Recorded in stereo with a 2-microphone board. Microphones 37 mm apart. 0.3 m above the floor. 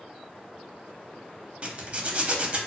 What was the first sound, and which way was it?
A zipper, 35° right (ahead or behind).